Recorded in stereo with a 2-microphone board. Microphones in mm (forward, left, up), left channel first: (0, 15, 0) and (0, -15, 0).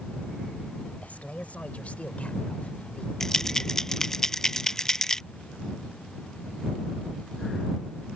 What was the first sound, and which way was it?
A man speaking, 55° left (ahead or behind).